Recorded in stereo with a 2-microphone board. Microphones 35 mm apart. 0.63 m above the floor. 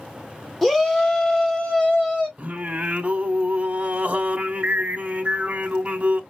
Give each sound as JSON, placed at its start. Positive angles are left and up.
{"t": 0.6, "sound": "a shout", "side_deg": 5, "distance_m": 0.9}
{"t": 2.4, "sound": "singing", "side_deg": -40, "distance_m": 0.8}